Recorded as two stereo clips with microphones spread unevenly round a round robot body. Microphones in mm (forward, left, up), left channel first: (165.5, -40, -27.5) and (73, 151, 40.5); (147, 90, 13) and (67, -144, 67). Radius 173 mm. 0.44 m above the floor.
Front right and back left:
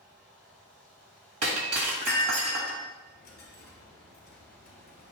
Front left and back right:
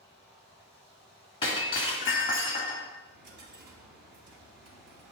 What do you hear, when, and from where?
0.0 s running water: 160° left, 5 m
1.4 s breaking glass: 145° left, 1.3 m
3.0 s a dropped coin: 120° right, 3 m